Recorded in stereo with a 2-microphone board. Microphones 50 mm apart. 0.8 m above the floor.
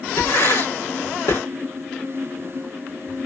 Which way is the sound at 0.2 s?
80° left.